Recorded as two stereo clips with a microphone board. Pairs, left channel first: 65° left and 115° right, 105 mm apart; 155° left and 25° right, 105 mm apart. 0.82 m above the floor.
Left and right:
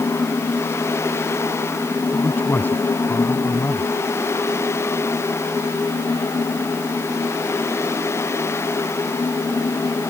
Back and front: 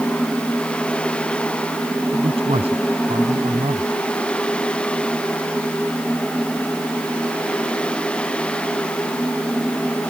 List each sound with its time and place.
2.1 s a man speaking: 5° right